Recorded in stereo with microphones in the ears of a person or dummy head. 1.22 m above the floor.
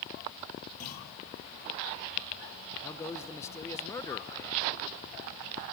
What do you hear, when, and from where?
0.8 s a clunk: 45° left (ahead or behind), 9.5 m
2.8 s a man speaking: 15° left (ahead or behind), 1.2 m